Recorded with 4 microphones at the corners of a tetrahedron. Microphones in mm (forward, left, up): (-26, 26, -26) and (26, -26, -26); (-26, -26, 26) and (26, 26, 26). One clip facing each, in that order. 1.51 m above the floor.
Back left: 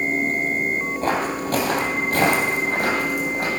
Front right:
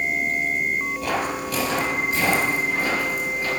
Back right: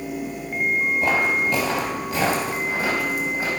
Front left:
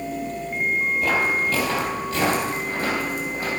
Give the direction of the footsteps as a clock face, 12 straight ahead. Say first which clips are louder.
Back left 3 dB, back right 1 dB; 6 o'clock.